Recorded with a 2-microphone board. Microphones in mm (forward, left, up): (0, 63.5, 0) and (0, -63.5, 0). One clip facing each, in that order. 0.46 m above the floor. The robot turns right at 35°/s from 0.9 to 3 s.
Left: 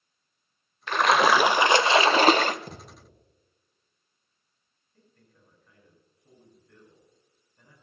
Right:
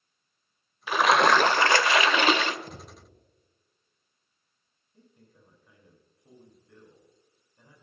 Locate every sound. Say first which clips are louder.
0.9 s a splash: even; 5° right, 0.5 m; by 2.6 s 50° left, 0.5 m
2.7 s a thud: left 1 dB; 60° left (ahead or behind), 4.5 m; by 3.2 s 70° left (ahead or behind), 4.5 m
4.9 s a man speaking: right 4 dB; 15° right (ahead or behind), 4.5 m